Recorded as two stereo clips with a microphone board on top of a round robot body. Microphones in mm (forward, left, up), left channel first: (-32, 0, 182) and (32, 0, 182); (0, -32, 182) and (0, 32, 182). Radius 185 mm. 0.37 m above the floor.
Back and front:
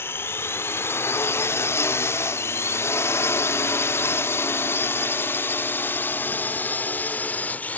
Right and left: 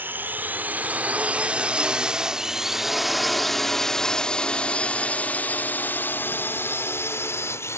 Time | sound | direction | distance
0.0 | a drone | 140° left | ?